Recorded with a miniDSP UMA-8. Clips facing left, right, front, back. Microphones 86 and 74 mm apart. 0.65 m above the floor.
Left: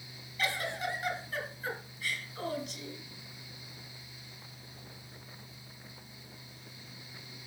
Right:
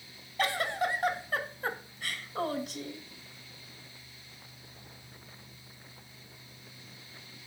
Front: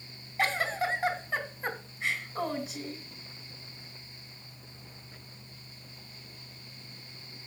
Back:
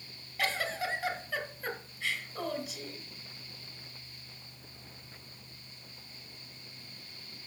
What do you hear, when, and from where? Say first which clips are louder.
0.4 s a giggle: right 4 dB, front 4 dB; 65° right, 1.7 m